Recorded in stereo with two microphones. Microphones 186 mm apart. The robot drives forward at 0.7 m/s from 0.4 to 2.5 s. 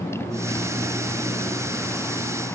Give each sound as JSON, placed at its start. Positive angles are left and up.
{"t": 0.0, "sound": "a motorcycle", "side_deg": 15}